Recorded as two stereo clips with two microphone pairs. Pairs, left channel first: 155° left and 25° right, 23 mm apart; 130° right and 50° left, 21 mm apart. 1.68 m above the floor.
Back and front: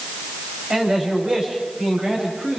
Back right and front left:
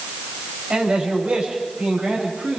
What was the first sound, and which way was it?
A man speaking, 15° left.